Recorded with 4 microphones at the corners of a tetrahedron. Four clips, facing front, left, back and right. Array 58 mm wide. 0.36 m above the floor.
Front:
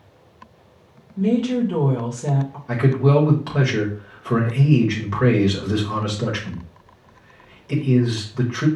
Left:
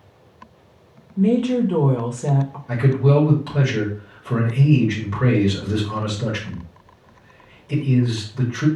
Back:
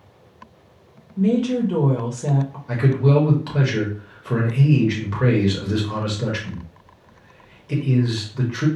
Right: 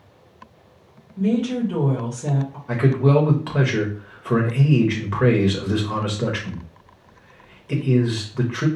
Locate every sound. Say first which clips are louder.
1.2 s a woman speaking: left 3 dB, even; 105° left, 0.9 m
2.7 s a man speaking: even, front 1 dB; 75° right, 1.0 m